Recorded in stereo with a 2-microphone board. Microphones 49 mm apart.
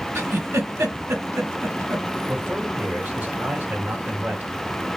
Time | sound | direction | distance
0.1 | a giggle | 75° right (ahead or behind) | 1.4 m
2.3 | a man speaking | 35° right (ahead or behind) | 1.9 m